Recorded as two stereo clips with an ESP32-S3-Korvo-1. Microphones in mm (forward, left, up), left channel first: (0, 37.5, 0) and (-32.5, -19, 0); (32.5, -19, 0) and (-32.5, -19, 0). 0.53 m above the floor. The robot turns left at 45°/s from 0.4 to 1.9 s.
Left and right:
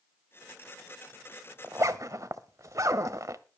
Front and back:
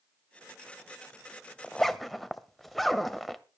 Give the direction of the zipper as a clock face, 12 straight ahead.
3 o'clock.